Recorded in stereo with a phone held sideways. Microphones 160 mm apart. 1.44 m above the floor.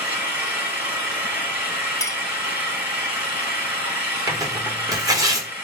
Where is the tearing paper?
20° right (ahead or behind), 0.9 m.